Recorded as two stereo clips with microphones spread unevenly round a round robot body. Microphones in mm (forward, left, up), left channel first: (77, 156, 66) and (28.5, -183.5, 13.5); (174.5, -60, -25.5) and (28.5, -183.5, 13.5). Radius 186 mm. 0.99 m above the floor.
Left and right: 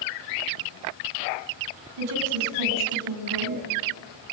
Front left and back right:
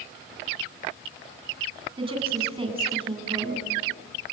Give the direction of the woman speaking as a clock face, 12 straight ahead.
3 o'clock.